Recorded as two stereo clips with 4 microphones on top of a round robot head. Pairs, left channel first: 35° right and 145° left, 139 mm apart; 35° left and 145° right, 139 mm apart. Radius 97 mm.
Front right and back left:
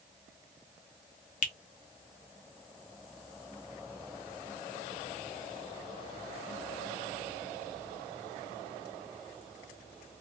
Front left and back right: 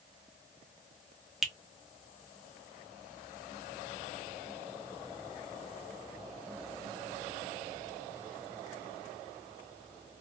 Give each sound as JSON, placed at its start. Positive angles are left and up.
{"t": 1.4, "sound": "a finger snap", "azimuth_deg": -55, "distance_m": 0.7}